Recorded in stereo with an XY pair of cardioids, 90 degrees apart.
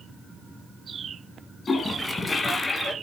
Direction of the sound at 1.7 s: 40° left.